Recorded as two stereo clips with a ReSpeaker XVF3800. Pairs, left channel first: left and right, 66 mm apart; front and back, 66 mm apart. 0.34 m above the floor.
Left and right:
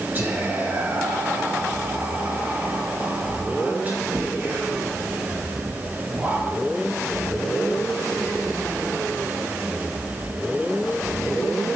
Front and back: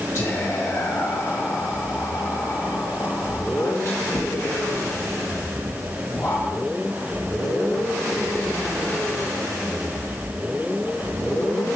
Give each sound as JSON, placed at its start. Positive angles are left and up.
{"t": 0.1, "sound": "whispering", "azimuth_deg": -40, "distance_m": 1.7}